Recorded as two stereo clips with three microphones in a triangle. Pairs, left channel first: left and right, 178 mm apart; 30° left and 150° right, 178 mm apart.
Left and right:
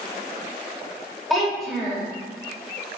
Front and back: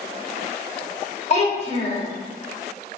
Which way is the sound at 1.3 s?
Straight ahead.